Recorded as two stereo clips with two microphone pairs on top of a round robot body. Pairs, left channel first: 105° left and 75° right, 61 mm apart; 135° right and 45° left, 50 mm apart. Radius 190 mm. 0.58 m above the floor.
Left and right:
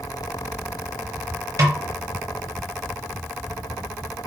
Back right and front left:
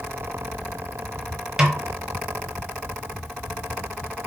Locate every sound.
1.6 s a snare drum: 35° right, 0.8 m